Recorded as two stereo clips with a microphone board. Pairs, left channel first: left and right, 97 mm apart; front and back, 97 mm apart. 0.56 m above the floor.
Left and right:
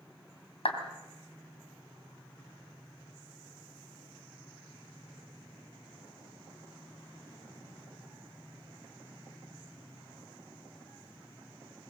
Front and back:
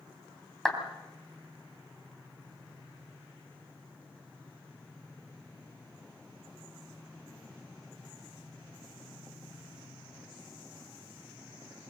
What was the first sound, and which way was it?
A clap, 90° left.